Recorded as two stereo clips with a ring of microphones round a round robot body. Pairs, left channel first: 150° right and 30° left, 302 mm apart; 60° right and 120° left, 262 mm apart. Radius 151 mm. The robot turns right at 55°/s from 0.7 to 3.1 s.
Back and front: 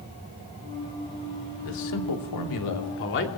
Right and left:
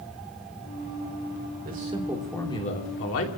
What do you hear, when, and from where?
1.6 s a man speaking: 175° left, 2.5 m; by 3.4 s 105° right, 2.5 m